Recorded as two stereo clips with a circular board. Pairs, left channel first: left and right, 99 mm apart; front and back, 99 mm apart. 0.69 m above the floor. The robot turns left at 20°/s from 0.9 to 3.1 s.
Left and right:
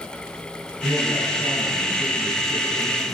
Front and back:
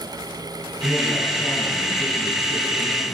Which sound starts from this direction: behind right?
A man speaking, at 0.8 s.